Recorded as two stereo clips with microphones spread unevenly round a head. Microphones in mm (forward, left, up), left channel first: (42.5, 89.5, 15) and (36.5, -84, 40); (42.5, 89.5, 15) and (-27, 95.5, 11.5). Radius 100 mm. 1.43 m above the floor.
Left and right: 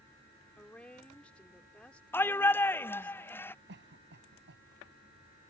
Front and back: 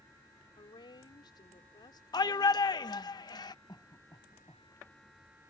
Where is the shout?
5° left.